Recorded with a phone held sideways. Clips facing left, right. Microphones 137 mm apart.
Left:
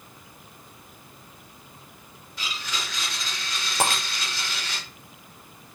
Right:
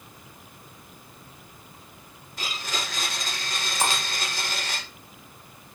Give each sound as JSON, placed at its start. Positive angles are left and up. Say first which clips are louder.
{"t": 2.4, "sound": "a blender", "louder": "right 2 dB", "side_deg": -45, "distance_m": 6.0}
{"t": 3.8, "sound": "breaking glass", "louder": "left 2 dB", "side_deg": 55, "distance_m": 4.0}